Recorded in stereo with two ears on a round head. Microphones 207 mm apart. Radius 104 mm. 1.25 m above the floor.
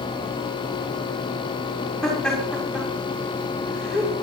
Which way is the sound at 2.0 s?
5° left (ahead or behind).